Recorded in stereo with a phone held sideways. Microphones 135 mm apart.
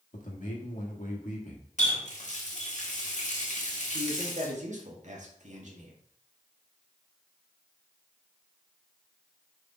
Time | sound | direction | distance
0.1 | a man speaking | 65° left (ahead or behind) | 1.7 m
1.8 | a running tap | 60° left (ahead or behind) | 1.5 m
3.9 | a man speaking | 60° right (ahead or behind) | 1.7 m